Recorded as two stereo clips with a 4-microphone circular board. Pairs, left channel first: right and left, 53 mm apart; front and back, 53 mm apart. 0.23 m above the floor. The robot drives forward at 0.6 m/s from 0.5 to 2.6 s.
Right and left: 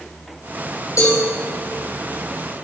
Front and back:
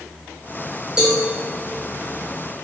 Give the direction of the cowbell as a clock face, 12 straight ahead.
3 o'clock.